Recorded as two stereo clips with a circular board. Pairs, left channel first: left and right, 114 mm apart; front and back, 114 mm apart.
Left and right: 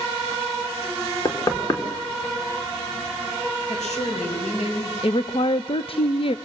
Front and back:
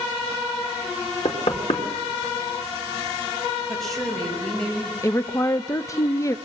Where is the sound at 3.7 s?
90° left, 6.5 m.